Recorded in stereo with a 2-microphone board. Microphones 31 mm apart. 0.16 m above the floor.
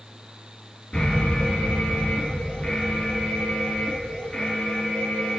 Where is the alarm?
35° left (ahead or behind), 1.9 m.